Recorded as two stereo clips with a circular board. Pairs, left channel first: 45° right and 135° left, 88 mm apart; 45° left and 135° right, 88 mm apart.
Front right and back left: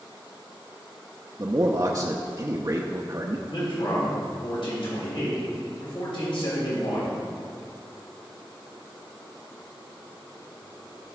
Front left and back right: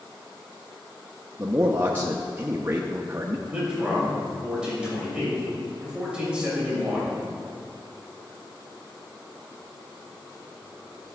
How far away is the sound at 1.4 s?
About 0.7 m.